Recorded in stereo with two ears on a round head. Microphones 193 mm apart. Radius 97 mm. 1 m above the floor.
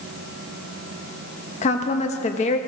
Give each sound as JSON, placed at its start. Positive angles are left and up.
{"t": 1.6, "sound": "a woman speaking", "side_deg": 30, "distance_m": 1.1}